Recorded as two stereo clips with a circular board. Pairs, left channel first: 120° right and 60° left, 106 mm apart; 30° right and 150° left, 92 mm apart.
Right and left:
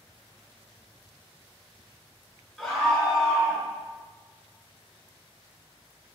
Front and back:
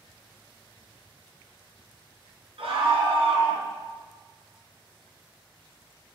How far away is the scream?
About 4 m.